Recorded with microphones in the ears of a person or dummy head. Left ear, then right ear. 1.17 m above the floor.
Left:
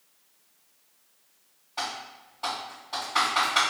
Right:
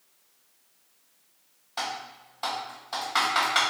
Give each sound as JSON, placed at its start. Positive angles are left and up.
{"t": 1.8, "sound": "typing on a keyboard", "side_deg": -25, "distance_m": 1.8}